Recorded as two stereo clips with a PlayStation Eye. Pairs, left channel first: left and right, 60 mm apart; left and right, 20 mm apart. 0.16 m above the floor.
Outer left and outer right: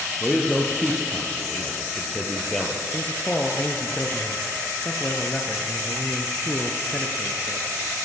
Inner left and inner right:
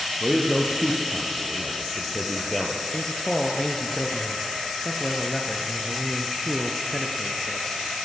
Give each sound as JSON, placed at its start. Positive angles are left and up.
{"t": 0.2, "sound": "a man speaking", "side_deg": 5, "distance_m": 3.0}
{"t": 2.9, "sound": "a man speaking", "side_deg": 25, "distance_m": 2.0}